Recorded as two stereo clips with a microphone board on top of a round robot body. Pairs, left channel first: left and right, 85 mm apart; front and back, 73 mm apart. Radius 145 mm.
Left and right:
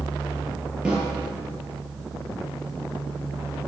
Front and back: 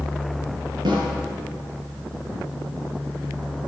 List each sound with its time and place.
0.8 s a snare drum: 170° right, 4.5 m